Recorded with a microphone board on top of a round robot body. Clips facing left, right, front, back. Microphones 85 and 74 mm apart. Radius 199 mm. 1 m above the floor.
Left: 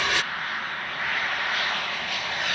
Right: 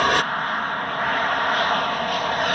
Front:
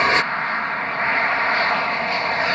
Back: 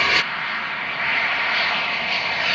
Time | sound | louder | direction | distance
0.0 | an aircraft | right 7 dB, front 3 dB | 55° right | ?